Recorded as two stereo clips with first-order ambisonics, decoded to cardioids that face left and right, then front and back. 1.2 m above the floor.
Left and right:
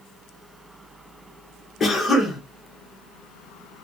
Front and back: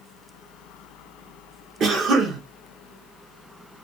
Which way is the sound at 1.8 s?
145° left.